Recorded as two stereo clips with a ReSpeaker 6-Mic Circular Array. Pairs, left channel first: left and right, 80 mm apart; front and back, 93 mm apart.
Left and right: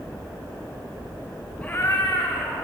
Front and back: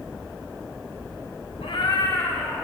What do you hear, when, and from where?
1.6 s a cat meowing: 15° left, 0.6 m; by 2.6 s 75° left, 1.4 m